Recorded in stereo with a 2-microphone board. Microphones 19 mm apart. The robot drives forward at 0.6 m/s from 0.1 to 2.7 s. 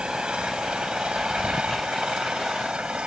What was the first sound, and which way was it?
An engine running, 65° right (ahead or behind).